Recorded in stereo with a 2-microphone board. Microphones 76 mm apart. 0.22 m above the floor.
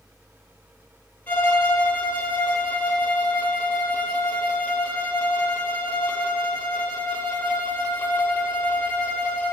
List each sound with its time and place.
1.3 s a violin: 25° left (ahead or behind), 1.0 m